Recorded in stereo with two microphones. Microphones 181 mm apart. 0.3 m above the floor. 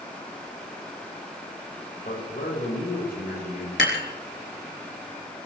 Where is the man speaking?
50° left (ahead or behind), 7.5 m.